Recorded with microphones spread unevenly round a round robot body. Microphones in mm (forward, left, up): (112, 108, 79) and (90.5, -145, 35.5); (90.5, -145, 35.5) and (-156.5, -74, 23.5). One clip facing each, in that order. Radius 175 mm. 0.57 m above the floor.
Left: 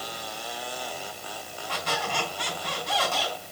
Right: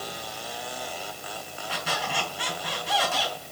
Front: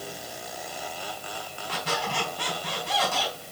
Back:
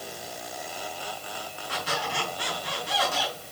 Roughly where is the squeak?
Ahead.